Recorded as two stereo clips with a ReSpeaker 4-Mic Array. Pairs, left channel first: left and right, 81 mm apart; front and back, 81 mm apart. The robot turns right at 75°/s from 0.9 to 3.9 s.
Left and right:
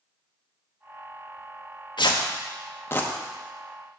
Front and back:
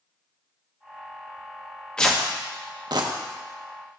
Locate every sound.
2.0 s tearing paper: 80° left, 0.9 m; by 3.1 s 165° left, 0.9 m